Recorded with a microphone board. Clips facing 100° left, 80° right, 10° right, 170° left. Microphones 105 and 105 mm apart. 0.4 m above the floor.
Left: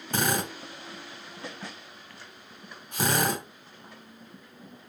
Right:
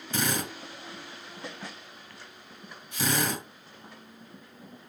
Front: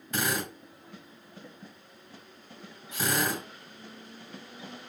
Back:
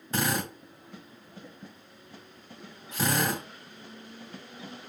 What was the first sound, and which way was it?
A drill, 115° left.